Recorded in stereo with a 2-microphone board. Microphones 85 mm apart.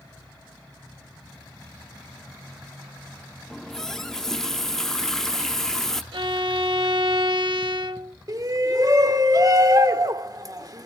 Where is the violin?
90° right, 1.2 m.